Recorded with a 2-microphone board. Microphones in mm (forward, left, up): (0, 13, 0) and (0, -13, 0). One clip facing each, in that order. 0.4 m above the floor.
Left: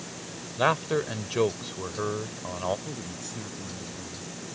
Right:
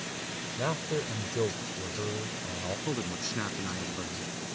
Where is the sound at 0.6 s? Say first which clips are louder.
Left 8 dB; 50° left (ahead or behind).